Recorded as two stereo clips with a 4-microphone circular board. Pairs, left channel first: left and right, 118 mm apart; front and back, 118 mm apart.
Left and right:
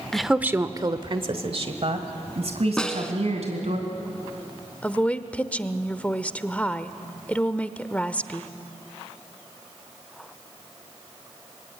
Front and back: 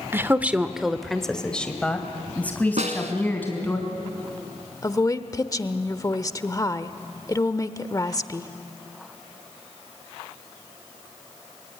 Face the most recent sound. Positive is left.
turn(degrees=25)